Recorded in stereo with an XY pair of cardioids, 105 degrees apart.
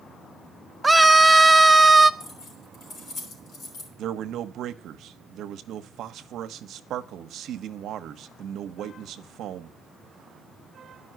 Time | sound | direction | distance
0.8 | a scream | 10° right | 0.8 m
2.2 | keys jangling | 65° left | 3.5 m
4.0 | a man speaking | 70° right | 0.9 m